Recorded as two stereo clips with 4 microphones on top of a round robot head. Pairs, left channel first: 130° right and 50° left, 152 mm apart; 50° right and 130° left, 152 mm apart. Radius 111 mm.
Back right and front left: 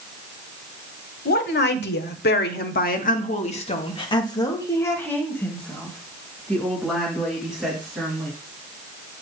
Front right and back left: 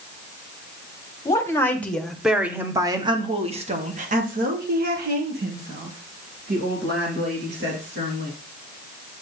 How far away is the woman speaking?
About 1.4 m.